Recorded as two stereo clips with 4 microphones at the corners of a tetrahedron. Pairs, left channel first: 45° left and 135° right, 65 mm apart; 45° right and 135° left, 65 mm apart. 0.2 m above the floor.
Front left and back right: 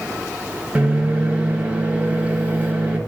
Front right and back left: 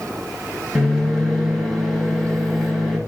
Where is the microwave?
130° right, 1.0 m.